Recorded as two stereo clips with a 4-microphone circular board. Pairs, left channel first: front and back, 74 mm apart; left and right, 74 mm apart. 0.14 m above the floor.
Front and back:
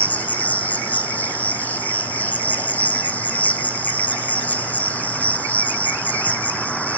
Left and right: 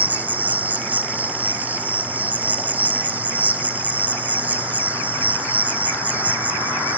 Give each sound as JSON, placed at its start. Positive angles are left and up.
{"t": 0.0, "sound": "an insect", "azimuth_deg": -45, "distance_m": 1.1}